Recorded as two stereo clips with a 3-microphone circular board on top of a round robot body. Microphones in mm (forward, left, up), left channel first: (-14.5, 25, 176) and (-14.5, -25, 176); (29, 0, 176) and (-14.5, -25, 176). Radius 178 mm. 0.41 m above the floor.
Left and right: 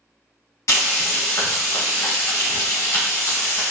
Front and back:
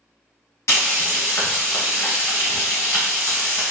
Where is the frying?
60° left, 1.1 m.